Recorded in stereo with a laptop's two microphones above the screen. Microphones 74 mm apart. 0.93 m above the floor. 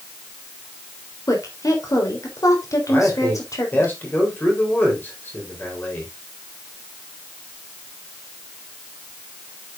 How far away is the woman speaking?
About 3.5 m.